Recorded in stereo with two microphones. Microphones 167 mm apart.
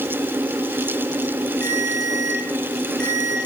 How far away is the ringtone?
About 5.5 m.